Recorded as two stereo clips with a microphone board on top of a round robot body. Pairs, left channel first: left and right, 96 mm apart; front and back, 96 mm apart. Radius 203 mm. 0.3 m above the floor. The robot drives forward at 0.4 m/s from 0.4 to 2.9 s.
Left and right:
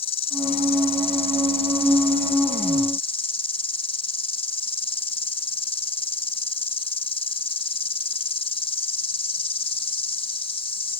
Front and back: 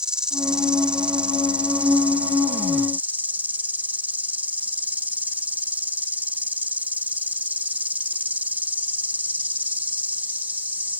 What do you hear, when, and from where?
0.0 s an insect: 100° left; by 11.0 s 105° left